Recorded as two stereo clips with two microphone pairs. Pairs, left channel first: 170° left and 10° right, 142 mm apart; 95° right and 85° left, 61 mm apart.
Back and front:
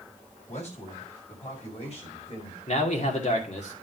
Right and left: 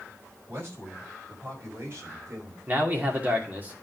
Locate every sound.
0.5 s a man speaking: 135° left, 4.5 m; by 2.6 s 125° left, 4 m
2.7 s a man speaking: 140° left, 2.5 m